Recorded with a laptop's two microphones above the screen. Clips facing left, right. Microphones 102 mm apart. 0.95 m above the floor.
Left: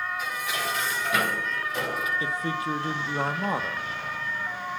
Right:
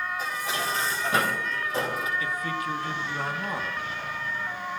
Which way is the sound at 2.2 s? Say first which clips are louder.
Left 1 dB; 30° left (ahead or behind).